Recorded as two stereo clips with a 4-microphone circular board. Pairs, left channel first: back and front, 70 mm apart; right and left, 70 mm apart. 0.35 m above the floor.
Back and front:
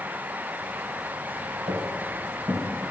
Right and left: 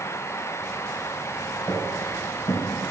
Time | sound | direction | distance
1.7 | footsteps | 20° right | 1.4 m